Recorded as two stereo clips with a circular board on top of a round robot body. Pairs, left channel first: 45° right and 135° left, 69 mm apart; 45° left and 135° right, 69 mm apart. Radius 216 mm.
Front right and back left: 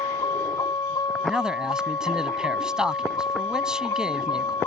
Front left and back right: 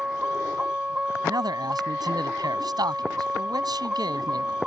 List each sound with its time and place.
0.0 s a vehicle: 60° right
1.2 s a man speaking: 145° right